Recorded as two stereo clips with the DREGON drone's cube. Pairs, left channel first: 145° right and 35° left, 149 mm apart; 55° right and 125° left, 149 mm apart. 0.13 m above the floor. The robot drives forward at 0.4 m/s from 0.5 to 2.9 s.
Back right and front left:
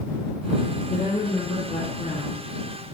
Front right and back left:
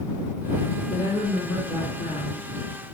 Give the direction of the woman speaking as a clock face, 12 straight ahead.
4 o'clock.